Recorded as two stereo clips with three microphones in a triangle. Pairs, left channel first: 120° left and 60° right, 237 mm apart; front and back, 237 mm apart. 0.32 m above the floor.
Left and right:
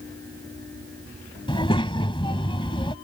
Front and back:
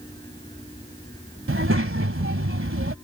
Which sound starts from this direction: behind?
A child speaking, at 1.5 s.